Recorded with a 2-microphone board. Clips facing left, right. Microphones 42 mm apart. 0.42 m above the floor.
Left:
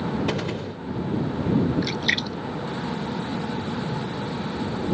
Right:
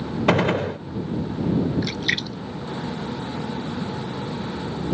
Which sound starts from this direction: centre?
A splash, at 1.8 s.